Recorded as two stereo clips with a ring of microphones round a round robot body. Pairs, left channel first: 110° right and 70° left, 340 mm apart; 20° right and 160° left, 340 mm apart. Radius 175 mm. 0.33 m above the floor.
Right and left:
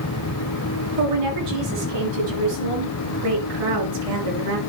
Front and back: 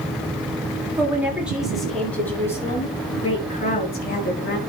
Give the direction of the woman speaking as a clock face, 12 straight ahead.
10 o'clock.